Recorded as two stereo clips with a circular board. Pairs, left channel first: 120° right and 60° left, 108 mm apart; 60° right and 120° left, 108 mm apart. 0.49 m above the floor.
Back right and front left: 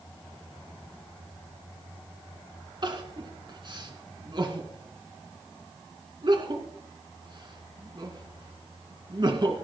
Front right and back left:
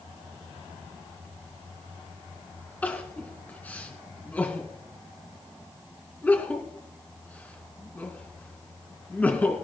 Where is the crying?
15° left, 2.5 m.